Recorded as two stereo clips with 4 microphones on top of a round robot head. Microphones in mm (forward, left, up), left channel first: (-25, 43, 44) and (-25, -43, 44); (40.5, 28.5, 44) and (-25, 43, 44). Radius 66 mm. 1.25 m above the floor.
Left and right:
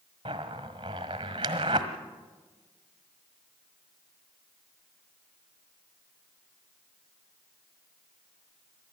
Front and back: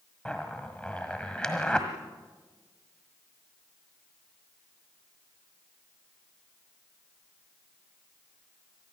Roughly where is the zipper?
Right.